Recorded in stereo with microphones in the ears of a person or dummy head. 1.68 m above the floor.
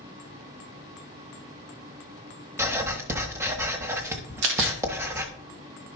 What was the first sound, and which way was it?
Writing, 15° right (ahead or behind).